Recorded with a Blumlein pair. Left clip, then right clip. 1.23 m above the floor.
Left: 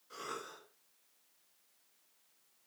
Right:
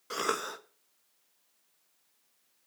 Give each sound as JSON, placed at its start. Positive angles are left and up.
{"t": 0.1, "sound": "a cough", "azimuth_deg": -50, "distance_m": 1.2}